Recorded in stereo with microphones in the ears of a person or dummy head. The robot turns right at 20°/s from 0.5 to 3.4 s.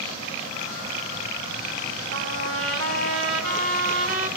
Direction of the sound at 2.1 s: 80° right.